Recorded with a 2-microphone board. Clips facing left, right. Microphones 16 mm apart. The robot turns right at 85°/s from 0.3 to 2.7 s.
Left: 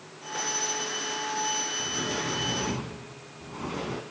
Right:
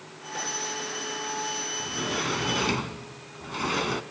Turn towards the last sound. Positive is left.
turn(degrees=-105)